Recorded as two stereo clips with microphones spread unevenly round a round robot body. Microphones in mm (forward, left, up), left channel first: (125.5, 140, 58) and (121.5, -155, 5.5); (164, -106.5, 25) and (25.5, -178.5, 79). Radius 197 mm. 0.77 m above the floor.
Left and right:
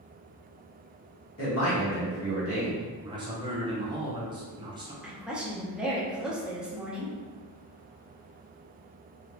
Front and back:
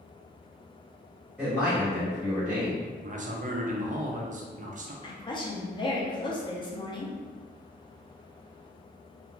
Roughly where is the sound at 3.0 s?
Behind right.